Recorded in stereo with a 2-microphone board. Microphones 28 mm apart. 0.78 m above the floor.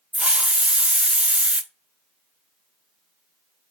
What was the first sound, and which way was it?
A hiss, 50° right (ahead or behind).